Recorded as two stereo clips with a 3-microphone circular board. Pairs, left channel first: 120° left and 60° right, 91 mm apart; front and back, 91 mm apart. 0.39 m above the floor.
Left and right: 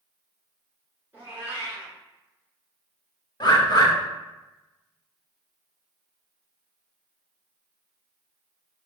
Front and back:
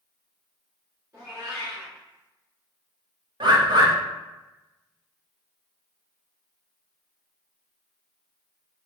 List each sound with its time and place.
1.1 s a cat meowing: 125° right, 1.5 m
3.4 s a bird: 155° left, 0.5 m